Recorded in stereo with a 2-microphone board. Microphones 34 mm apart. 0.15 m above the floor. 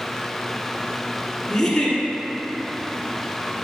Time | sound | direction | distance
1.5 | a giggle | 10° left (ahead or behind) | 1.6 m